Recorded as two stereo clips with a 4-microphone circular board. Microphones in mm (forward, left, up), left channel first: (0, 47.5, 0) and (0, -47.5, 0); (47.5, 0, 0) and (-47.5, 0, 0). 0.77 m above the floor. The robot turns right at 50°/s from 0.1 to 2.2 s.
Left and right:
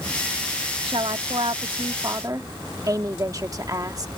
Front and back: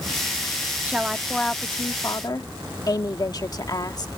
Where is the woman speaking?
110° right; by 4.2 s 40° right.